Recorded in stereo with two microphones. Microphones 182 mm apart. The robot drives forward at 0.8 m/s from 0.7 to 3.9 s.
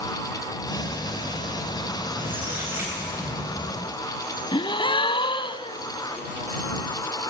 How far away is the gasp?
About 1.0 m.